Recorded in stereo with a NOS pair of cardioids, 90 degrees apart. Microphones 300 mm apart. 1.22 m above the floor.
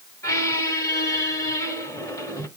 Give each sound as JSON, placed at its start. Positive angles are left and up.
{"t": 0.2, "sound": "a squeak", "azimuth_deg": 10, "distance_m": 1.8}